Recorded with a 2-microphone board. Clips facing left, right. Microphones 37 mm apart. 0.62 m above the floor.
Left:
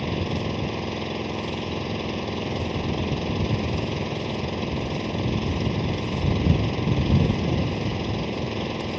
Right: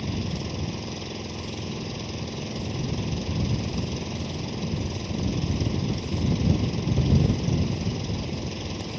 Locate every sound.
0.0 s an engine running: 30° left (ahead or behind)